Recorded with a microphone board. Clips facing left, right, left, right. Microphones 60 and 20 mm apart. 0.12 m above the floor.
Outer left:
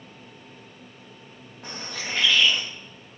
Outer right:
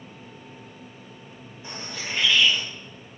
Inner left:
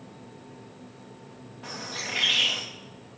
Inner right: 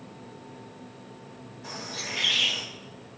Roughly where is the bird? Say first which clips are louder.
Outer left 1 dB, inner left 1 dB; left.